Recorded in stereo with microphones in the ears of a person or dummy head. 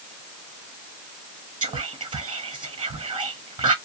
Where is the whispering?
25° right (ahead or behind), 0.7 m.